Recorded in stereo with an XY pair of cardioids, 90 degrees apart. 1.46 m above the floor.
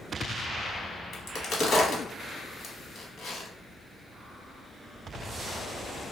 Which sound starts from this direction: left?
A crack, at 1.1 s.